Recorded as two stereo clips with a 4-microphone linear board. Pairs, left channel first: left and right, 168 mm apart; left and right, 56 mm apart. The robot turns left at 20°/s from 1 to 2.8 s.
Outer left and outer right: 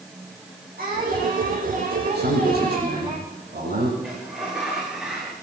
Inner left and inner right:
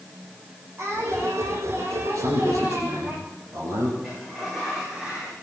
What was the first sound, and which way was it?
Singing, 120° right.